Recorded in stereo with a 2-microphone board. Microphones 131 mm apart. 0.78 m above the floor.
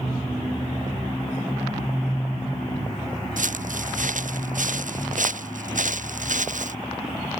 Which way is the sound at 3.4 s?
80° right.